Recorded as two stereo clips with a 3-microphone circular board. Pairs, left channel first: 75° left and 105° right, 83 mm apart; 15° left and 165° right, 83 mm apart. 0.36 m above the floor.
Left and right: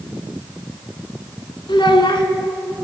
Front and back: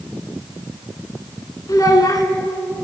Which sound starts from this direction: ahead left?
A child speaking, at 1.7 s.